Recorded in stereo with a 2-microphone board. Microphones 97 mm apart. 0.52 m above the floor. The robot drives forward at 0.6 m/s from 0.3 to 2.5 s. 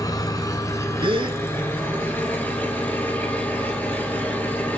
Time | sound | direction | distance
0.0 | an engine running | 40° left (ahead or behind) | 1.4 m
1.0 | a gasp | 65° right (ahead or behind) | 1.0 m